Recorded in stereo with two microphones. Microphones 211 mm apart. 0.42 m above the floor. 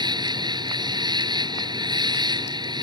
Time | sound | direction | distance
0.0 | an insect | 20° right (ahead or behind) | ?